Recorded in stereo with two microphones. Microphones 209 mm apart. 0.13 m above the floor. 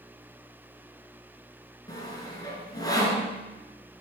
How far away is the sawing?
About 1.8 m.